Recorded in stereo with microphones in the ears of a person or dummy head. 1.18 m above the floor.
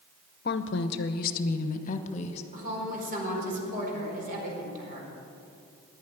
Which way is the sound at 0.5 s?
50° left (ahead or behind).